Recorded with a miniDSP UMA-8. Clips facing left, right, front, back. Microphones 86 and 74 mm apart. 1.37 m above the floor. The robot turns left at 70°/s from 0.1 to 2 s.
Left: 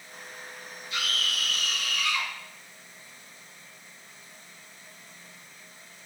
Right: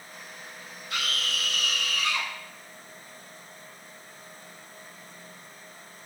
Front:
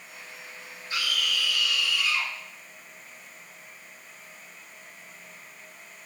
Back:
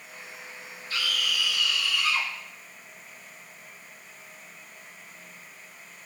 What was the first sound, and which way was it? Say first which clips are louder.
A scream: even, even; 70° right.